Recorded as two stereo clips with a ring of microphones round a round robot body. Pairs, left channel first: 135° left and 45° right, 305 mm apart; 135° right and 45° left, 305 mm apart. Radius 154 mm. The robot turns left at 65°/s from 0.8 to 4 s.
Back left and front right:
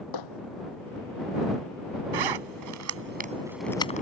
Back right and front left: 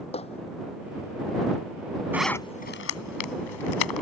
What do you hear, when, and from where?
0.1 s hammering: 155° left
2.1 s a zipper: 40° right; by 4.0 s 160° right